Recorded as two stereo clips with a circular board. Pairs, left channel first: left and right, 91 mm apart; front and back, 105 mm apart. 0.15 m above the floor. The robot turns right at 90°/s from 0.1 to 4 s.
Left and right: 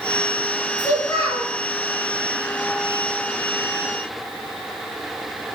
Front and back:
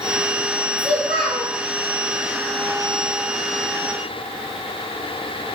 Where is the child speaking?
95° left, 1.1 m; by 1.5 s 155° left, 1.1 m.